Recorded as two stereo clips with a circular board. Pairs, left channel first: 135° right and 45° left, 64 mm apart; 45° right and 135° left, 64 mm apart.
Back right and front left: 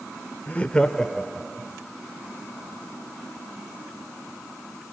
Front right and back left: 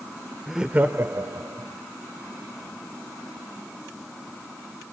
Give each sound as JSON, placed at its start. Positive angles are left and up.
{"t": 0.5, "sound": "laughter", "azimuth_deg": -135, "distance_m": 0.8}